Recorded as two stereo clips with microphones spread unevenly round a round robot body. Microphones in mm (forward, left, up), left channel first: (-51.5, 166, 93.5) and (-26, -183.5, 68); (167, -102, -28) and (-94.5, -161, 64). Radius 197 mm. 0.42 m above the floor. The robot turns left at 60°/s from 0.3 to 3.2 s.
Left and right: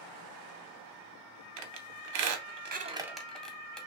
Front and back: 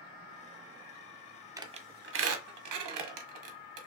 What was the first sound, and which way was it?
A squeak, 75° right.